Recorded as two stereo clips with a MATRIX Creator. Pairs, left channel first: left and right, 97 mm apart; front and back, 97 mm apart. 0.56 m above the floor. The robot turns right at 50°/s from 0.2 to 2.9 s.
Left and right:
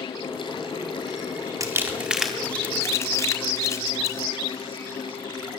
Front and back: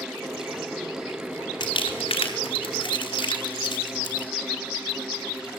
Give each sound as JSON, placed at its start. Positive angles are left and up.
{"t": 1.6, "sound": "crumpling", "azimuth_deg": -35, "distance_m": 4.5}